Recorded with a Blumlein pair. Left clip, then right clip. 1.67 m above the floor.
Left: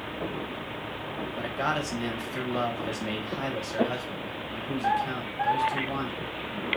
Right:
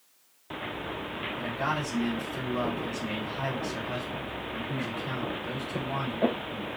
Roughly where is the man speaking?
Ahead left.